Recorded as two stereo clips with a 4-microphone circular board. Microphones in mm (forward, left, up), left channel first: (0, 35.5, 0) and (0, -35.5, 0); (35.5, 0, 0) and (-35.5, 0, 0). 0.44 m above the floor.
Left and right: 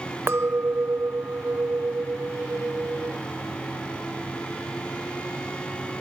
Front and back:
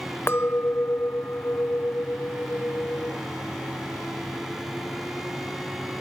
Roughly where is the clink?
Ahead right.